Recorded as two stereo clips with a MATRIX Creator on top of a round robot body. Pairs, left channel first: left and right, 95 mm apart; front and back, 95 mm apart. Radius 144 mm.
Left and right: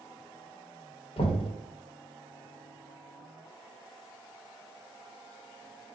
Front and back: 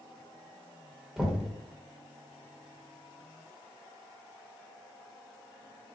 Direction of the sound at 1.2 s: 90° left.